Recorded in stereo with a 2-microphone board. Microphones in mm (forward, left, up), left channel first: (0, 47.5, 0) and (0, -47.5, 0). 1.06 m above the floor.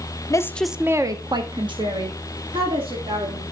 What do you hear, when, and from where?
0.3 s a woman speaking: 35° left (ahead or behind), 0.7 m; by 3.4 s 70° right (ahead or behind), 3.5 m